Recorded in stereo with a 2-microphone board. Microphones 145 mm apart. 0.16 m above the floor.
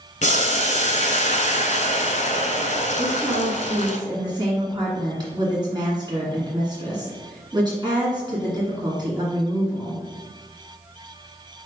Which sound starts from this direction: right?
A woman speaking, at 3.0 s.